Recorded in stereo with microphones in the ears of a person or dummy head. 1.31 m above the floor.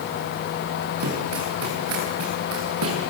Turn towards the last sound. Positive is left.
turn(degrees=-80)